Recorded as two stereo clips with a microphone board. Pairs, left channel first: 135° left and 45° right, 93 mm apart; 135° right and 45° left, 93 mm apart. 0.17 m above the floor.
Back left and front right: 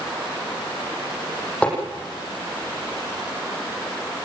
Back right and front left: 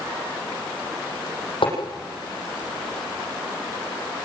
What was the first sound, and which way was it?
Tapping, 150° right.